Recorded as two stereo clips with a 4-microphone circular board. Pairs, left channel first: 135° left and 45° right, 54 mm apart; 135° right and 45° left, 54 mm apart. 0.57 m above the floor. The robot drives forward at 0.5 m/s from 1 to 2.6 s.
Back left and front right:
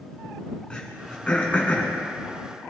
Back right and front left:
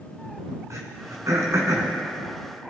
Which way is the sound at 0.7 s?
60° left.